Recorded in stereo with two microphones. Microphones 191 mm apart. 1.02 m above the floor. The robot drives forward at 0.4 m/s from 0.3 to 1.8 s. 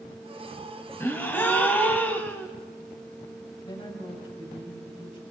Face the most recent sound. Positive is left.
turn(degrees=25)  # may be behind; listen again after turning